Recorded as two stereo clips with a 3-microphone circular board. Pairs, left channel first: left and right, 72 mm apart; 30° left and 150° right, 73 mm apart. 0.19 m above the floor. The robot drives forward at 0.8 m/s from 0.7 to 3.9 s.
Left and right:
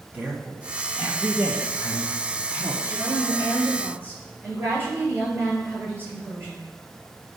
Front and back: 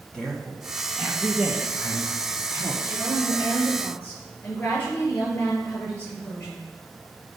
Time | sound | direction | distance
0.1 | a woman speaking | 40° right | 1.4 m
2.8 | a woman speaking | 30° right | 4.5 m